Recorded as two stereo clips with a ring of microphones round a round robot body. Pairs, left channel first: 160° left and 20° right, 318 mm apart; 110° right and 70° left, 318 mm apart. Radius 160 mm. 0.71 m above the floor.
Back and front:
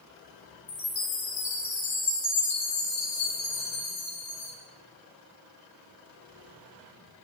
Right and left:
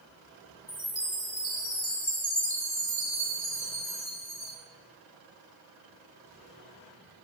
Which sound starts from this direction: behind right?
A chime, at 0.7 s.